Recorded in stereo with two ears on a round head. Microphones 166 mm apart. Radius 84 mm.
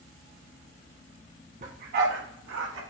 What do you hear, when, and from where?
1.6 s a dog barking: 45° right (ahead or behind), 2 m; by 2.8 s 85° right, 1.9 m